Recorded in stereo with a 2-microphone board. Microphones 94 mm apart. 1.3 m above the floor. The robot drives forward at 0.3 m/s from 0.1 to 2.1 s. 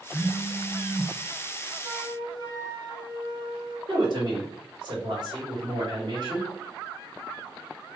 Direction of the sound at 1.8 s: 50° right (ahead or behind).